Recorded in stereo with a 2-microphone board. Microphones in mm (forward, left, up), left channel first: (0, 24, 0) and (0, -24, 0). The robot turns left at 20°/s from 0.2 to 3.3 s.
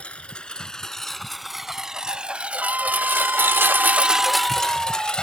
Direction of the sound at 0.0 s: 25° left (ahead or behind).